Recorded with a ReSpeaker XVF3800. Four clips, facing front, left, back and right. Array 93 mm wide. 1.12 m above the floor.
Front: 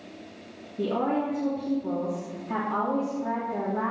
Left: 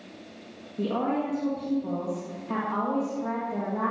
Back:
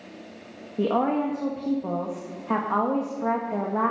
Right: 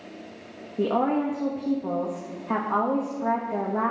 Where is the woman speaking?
150° right, 1.9 m.